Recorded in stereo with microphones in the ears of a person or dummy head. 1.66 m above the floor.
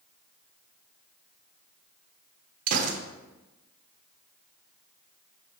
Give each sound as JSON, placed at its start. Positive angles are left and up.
{"t": 2.7, "sound": "a gunshot", "side_deg": -50, "distance_m": 0.9}